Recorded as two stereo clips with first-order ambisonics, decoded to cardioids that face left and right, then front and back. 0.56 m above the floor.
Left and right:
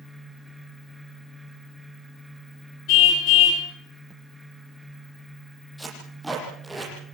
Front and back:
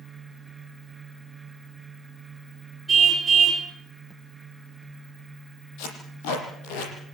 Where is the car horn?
95° left, 6.5 m.